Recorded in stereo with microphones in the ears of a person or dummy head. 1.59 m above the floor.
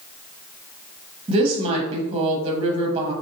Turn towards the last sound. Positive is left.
turn(degrees=-30)  # may be behind; listen again after turning